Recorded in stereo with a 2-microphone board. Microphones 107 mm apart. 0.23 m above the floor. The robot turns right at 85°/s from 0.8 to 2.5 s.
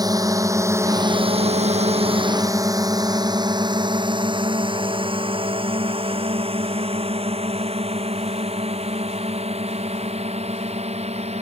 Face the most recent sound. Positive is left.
turn(degrees=-75)  # may be behind; listen again after turning